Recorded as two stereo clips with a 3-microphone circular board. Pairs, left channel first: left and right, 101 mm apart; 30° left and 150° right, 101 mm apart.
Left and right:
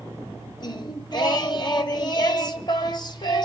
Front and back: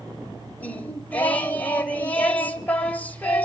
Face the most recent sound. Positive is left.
turn(degrees=100)